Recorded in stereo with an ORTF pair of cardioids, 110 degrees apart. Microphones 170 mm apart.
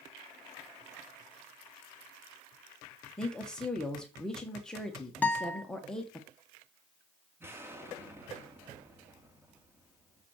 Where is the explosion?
15° right, 2.5 m.